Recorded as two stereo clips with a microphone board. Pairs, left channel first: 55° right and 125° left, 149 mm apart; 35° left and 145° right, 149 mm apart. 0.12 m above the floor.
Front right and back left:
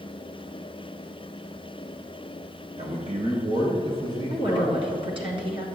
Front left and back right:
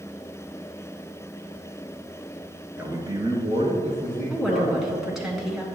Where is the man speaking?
140° left, 1.7 m; by 4.8 s 175° right, 4 m.